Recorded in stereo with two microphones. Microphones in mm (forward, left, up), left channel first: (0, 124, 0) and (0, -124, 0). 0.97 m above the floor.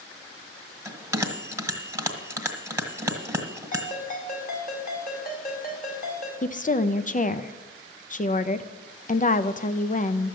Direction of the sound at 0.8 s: 10° right (ahead or behind).